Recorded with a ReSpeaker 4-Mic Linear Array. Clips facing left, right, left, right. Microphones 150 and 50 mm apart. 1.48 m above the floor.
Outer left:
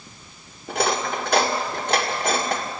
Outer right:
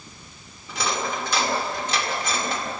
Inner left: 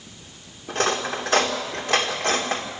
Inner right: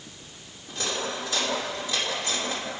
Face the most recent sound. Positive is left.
turn(degrees=60)  # may be behind; listen again after turning